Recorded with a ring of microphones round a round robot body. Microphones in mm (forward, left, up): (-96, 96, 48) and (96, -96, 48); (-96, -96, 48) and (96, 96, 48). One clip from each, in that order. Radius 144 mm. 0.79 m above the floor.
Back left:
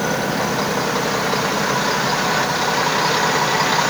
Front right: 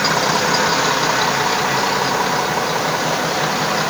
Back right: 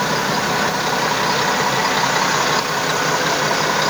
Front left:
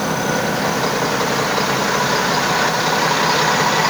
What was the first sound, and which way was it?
Only background noise.